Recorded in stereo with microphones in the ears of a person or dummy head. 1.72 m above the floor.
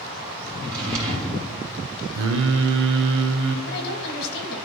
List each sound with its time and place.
0.6 s a drawer: 25° right (ahead or behind), 1.5 m
2.1 s singing: 70° right (ahead or behind), 0.7 m
3.7 s a woman speaking: 65° left (ahead or behind), 1.4 m